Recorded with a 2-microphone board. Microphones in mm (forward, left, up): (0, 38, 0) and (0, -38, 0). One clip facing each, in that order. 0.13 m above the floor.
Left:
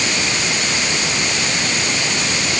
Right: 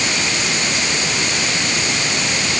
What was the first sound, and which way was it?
Only background noise.